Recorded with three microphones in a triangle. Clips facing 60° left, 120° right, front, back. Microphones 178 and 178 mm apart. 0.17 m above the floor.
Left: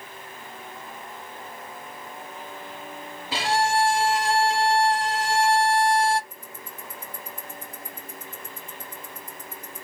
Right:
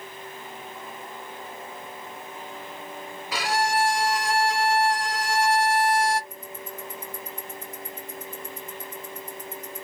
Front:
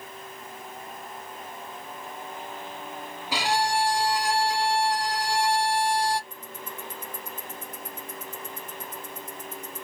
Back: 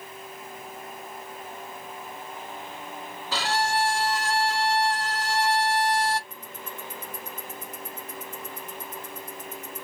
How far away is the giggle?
No giggle in this recording.